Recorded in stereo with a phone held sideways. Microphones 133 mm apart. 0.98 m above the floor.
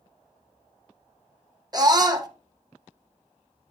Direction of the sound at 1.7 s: 30° right (ahead or behind).